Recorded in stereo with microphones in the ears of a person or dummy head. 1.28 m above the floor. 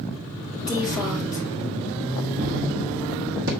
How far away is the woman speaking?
About 4.5 m.